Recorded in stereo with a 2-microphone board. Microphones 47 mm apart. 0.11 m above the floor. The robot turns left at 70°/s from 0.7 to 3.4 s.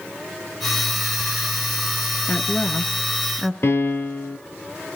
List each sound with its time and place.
2.3 s a woman speaking: 40° left (ahead or behind), 1.3 m; by 3.5 s 5° right (ahead or behind), 1.3 m
3.6 s a piano: 55° left (ahead or behind), 1.2 m